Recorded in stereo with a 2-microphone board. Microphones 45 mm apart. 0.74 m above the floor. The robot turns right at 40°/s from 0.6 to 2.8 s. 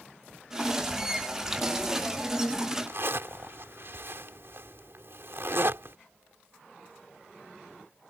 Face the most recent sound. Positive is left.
turn(degrees=-60)  # may be behind; listen again after turning